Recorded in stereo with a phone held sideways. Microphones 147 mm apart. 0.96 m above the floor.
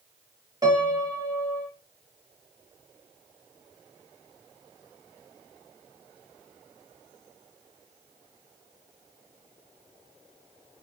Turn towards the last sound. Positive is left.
turn(degrees=-25)  # may be behind; listen again after turning